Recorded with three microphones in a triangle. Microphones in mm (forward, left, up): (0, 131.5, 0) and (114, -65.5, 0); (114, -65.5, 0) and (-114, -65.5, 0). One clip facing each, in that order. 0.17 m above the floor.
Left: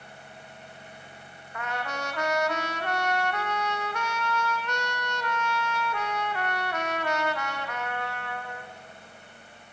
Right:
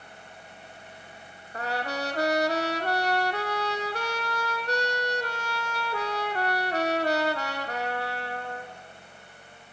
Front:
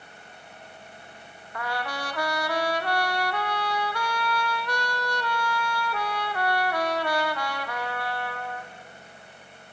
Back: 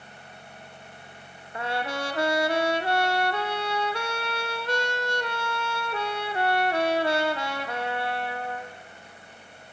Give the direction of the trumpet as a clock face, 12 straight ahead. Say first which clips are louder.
Right 3 dB, back 3 dB; 4 o'clock.